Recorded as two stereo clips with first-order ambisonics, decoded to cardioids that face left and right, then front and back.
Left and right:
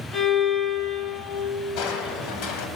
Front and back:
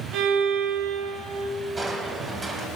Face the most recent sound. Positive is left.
turn(degrees=105)